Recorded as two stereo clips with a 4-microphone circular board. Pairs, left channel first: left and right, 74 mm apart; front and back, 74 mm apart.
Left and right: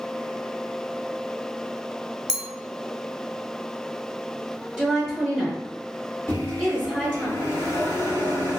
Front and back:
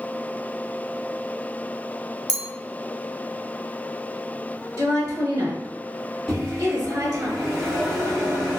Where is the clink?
170° right, 0.8 m.